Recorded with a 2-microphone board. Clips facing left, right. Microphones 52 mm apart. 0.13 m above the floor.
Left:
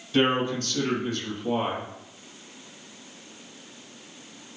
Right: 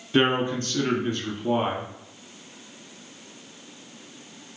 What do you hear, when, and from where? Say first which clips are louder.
0.1 s a man speaking: right 1 dB; 30° right (ahead or behind), 1.3 m